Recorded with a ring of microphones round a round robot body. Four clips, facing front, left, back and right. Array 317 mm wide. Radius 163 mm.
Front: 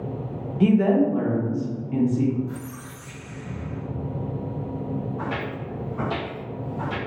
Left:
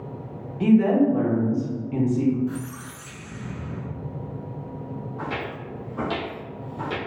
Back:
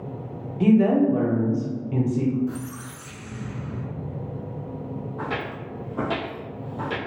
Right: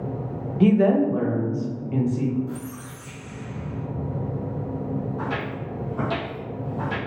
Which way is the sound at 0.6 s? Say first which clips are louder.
Even, back 1 dB; 80° right.